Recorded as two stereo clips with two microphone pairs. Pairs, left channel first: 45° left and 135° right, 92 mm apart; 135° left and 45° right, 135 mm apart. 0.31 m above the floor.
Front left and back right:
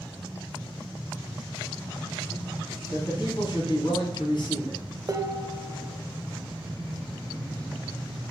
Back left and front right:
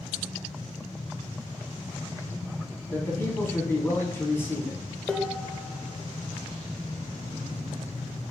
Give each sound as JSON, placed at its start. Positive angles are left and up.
{"t": 2.9, "sound": "a man speaking", "azimuth_deg": 65, "distance_m": 2.5}
{"t": 5.1, "sound": "dishes clattering", "azimuth_deg": -140, "distance_m": 0.7}